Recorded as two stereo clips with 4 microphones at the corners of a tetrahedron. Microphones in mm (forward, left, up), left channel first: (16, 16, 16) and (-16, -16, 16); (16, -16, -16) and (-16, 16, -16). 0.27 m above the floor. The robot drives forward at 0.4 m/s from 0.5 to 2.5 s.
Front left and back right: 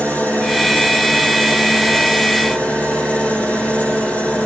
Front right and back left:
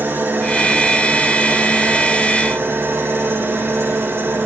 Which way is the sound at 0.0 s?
95° left.